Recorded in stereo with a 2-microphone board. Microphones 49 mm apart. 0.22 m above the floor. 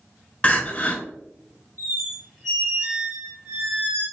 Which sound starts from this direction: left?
Crying, at 0.4 s.